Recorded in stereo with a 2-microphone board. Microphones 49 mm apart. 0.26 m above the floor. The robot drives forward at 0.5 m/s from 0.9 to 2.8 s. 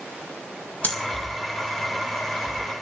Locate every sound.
0.8 s breathing: 35° left (ahead or behind), 3.5 m